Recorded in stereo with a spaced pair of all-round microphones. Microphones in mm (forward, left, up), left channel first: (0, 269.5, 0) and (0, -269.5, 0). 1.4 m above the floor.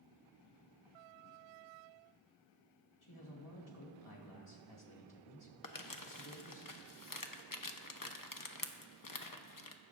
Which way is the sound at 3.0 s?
65° left (ahead or behind).